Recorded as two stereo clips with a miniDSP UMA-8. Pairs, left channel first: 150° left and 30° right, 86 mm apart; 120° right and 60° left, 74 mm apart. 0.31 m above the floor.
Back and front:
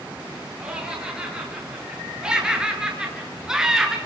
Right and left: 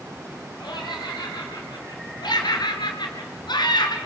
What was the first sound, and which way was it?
Laughter, 110° right.